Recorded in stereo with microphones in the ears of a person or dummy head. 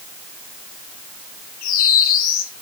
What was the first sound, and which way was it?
A bird, 55° left (ahead or behind).